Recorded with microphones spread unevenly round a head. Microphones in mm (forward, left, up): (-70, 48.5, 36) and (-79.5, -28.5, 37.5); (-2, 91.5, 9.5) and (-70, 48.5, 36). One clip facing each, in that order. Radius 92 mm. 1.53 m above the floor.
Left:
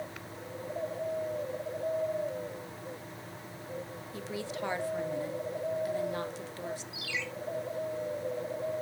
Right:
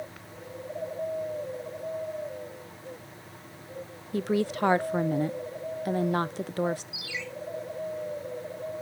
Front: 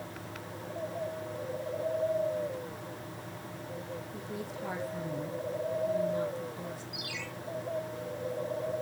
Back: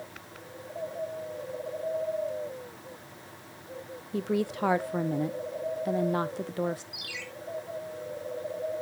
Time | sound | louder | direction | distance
4.1 | a woman speaking | right 11 dB, back 10 dB | 130° right | 0.6 m
6.9 | a ringtone | even, front 2 dB | 175° right | 3 m